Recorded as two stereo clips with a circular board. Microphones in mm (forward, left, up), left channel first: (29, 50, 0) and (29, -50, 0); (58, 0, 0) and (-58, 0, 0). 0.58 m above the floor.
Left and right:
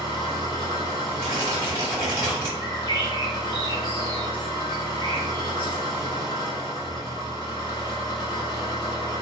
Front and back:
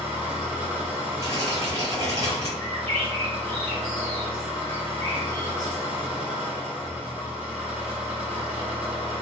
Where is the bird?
70° left, 1.2 m.